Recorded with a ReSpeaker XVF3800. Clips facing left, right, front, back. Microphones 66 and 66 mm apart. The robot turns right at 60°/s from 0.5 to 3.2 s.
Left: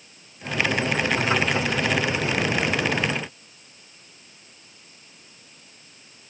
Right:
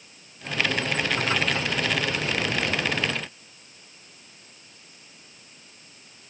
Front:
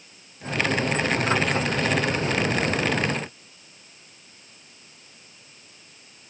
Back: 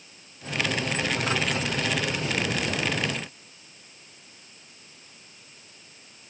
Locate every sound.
Only background noise.